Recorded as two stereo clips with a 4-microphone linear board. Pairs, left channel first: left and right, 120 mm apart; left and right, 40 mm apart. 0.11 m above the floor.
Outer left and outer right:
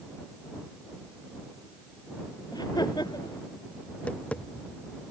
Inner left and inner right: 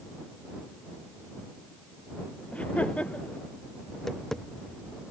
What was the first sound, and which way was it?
Laughter, 35° left (ahead or behind).